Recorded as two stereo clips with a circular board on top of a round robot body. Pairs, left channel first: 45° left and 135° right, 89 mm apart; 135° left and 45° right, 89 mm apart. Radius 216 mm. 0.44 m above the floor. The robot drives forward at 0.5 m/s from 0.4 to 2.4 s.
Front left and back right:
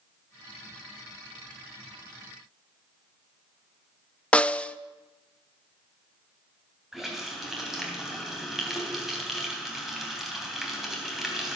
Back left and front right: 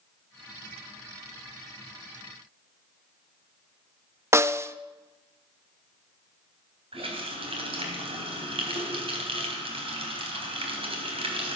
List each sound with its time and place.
4.3 s a snare drum: 20° right, 0.9 m
6.9 s a running tap: 50° right, 3.5 m